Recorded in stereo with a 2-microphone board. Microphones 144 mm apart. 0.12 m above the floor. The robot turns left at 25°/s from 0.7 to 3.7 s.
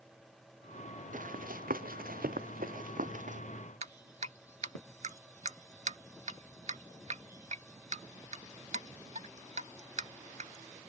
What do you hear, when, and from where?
1.1 s running footsteps: 65° right (ahead or behind); by 3.4 s 60° right (ahead or behind)
3.8 s dripping: 55° right (ahead or behind)